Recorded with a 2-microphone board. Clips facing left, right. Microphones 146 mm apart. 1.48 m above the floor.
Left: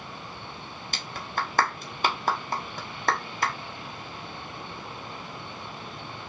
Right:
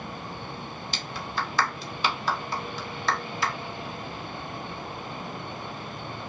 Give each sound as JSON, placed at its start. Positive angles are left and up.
{"t": 0.9, "sound": "a clap", "side_deg": 50, "distance_m": 0.9}